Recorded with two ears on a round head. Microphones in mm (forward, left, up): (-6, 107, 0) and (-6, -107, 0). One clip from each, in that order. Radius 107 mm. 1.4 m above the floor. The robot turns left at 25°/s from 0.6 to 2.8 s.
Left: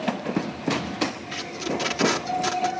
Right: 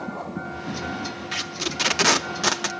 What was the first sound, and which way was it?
Tape being pulled, 15° right (ahead or behind).